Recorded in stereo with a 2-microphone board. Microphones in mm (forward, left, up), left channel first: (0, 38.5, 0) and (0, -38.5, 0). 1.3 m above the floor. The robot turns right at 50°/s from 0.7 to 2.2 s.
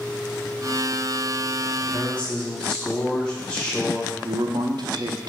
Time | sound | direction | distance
1.8 | a man speaking | 40° left (ahead or behind) | 1.6 m
4.2 | a man speaking | 60° right (ahead or behind) | 0.5 m